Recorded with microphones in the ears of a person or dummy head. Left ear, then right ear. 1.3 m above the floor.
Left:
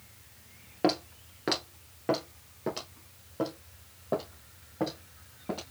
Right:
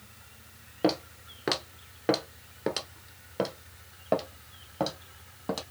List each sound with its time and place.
0.8 s footsteps: 10° left (ahead or behind), 1.5 m; by 5.6 s 60° right (ahead or behind), 2.5 m